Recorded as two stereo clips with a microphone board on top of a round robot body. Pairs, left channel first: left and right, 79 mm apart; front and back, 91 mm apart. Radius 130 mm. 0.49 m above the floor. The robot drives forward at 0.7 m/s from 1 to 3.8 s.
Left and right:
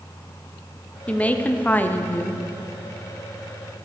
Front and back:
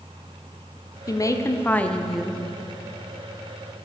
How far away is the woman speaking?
About 1.2 m.